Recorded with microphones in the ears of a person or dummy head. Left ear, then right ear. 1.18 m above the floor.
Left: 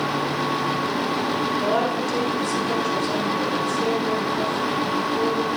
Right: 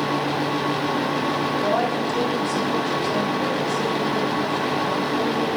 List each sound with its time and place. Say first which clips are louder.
1.6 s a woman speaking: right 1 dB; 85° left, 4.5 m; by 5.5 s 55° left (ahead or behind), 4 m